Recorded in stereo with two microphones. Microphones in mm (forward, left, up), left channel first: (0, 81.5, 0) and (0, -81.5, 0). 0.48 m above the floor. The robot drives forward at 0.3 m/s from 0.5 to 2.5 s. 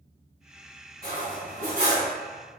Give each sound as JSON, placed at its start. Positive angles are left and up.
{"t": 1.0, "sound": "cutlery clinking", "side_deg": -60, "distance_m": 1.8}